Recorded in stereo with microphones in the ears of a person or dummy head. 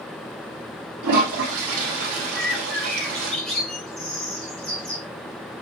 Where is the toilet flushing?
70° right (ahead or behind), 3 m.